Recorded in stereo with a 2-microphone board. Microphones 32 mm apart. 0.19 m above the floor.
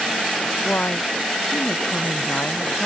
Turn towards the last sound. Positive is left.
turn(degrees=85)